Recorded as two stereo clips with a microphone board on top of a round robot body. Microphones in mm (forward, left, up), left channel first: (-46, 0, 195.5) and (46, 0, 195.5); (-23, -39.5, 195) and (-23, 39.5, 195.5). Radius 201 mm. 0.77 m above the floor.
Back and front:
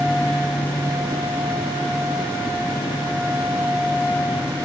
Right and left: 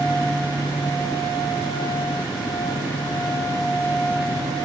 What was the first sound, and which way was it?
Only background noise.